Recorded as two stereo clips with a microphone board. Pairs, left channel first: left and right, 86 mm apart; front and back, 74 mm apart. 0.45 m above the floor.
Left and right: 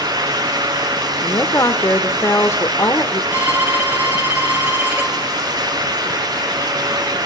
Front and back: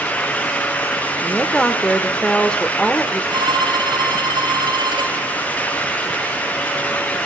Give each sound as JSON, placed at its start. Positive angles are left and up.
{"t": 1.2, "sound": "a woman speaking", "azimuth_deg": 70, "distance_m": 1.6}
{"t": 3.3, "sound": "a violin", "azimuth_deg": -160, "distance_m": 7.0}